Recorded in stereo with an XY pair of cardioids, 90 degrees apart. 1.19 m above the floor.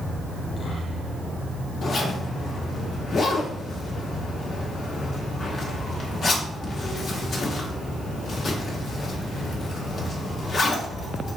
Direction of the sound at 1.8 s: 55° left.